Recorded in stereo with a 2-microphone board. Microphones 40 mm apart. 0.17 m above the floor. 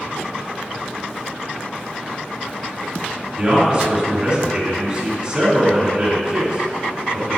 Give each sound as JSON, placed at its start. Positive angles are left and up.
{"t": 3.4, "sound": "a man speaking", "side_deg": -25, "distance_m": 1.8}